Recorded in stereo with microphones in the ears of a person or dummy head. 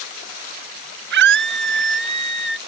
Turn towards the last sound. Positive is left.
turn(degrees=-70)  # may be behind; listen again after turning